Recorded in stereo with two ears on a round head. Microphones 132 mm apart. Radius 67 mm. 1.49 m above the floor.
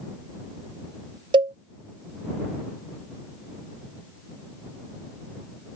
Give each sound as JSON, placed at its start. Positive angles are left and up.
{"t": 1.3, "sound": "a cowbell", "side_deg": -30}